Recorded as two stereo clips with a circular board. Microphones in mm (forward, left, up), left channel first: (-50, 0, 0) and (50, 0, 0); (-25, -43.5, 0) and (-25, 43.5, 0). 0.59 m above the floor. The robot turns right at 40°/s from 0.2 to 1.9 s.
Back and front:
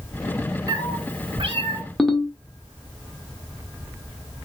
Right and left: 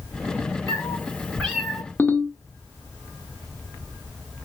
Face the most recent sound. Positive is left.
turn(degrees=-100)